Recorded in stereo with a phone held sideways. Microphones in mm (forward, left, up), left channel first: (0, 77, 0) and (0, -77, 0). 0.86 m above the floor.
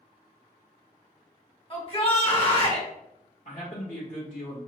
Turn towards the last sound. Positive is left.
turn(degrees=55)  # may be behind; listen again after turning